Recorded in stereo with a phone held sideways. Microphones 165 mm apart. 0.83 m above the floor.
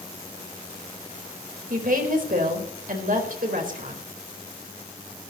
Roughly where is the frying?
No frying in this recording.